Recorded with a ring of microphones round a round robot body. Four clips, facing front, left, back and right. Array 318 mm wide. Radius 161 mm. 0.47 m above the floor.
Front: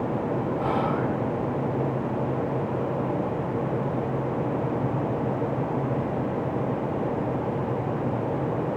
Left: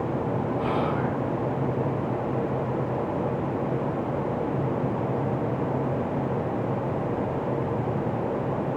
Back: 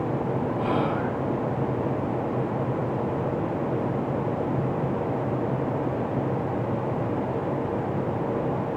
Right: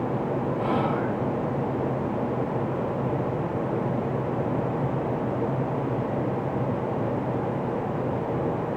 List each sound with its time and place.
0.6 s whispering: 20° left, 1.8 m